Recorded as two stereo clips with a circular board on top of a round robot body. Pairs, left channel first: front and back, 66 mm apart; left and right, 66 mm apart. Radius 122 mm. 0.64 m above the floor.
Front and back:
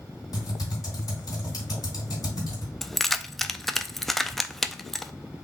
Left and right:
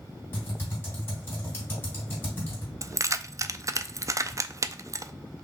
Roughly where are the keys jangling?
Right.